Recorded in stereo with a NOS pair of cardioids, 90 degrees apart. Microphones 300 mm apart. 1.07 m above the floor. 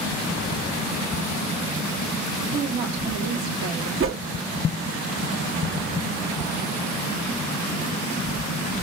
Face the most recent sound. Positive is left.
turn(degrees=-45)